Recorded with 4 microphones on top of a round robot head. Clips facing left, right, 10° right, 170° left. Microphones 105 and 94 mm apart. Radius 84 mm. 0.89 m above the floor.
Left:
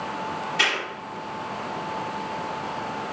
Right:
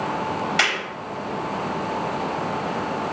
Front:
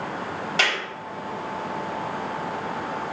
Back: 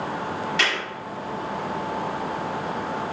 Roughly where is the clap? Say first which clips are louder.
Right 2 dB, front 2 dB; right.